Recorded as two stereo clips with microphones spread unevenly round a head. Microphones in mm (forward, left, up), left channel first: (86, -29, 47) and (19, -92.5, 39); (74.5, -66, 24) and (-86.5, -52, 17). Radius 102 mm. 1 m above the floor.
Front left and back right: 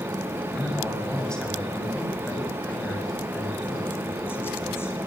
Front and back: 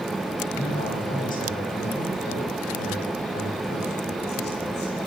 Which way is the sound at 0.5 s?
40° right.